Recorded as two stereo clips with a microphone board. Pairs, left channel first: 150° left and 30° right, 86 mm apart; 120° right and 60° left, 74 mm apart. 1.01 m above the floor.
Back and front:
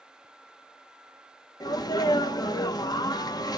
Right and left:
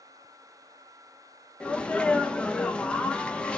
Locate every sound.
1.6 s a sneeze: 165° left, 0.7 m